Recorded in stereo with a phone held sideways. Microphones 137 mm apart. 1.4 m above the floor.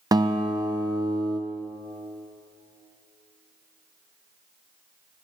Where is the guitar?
30° right (ahead or behind), 0.6 m.